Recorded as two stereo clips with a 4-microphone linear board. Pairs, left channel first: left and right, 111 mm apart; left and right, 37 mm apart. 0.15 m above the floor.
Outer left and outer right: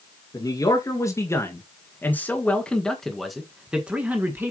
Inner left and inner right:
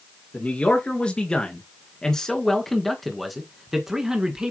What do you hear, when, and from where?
0.3 s a man speaking: 35° left (ahead or behind), 2.5 m; by 4.5 s 20° right (ahead or behind), 1.8 m